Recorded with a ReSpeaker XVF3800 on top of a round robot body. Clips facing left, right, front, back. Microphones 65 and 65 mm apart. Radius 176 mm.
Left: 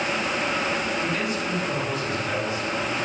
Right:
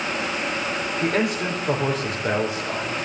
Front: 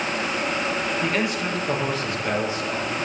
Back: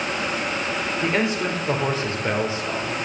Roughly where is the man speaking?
Behind right.